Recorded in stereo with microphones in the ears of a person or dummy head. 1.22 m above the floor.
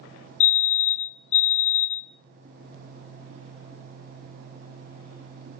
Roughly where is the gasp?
I don't hear a gasp.